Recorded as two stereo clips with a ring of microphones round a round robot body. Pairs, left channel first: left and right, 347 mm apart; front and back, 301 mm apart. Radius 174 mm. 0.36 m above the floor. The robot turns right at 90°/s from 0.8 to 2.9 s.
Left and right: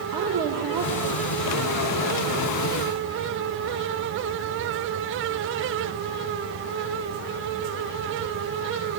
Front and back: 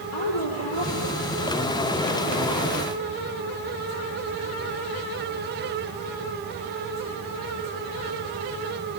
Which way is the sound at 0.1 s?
55° right.